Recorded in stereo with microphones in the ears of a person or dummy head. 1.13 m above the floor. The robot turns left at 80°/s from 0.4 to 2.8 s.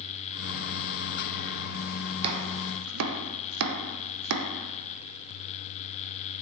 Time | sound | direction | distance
2.2 | chopping | 30° right (ahead or behind) | 0.5 m